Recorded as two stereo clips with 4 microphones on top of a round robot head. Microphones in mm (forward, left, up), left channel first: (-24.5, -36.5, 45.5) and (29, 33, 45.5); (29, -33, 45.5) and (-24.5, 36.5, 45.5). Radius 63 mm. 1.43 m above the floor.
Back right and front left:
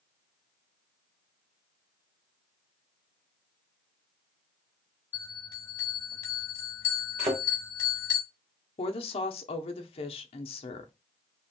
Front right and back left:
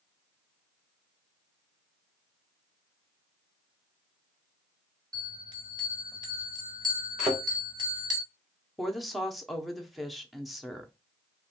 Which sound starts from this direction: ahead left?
A thud, at 7.2 s.